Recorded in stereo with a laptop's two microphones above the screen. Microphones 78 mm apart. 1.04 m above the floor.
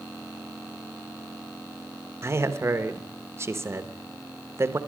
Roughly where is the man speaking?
Right.